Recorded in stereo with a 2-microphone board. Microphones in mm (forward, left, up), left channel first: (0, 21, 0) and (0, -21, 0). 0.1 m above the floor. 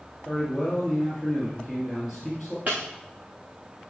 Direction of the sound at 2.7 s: 45° right (ahead or behind).